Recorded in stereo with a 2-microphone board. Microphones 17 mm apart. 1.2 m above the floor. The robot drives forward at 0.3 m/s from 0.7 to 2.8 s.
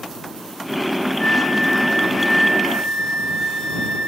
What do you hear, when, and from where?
1.2 s a flute: 50° left (ahead or behind), 1.0 m; by 4.1 s 40° left (ahead or behind), 1.3 m